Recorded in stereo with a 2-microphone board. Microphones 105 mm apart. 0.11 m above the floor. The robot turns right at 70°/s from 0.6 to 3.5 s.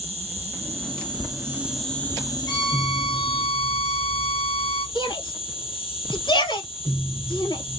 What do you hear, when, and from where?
0.0 s an insect: 85° right, 2 m; by 7.8 s 120° left, 2 m
2.5 s a violin: 40° left, 2 m; by 4.8 s 115° left, 2 m
5.0 s a shout: 45° left (ahead or behind), 2.5 m